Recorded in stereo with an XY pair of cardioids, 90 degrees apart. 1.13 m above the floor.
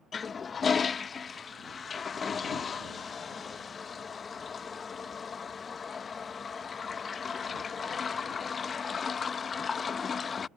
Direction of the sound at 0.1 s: 45° left.